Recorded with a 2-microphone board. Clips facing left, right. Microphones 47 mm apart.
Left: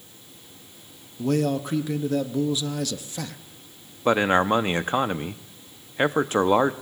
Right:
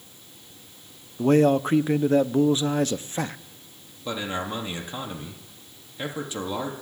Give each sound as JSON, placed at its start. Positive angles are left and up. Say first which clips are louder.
{"t": 1.2, "sound": "a man speaking", "louder": "right 5 dB", "side_deg": -30, "distance_m": 0.6}
{"t": 4.0, "sound": "a man speaking", "louder": "left 10 dB", "side_deg": 50, "distance_m": 0.7}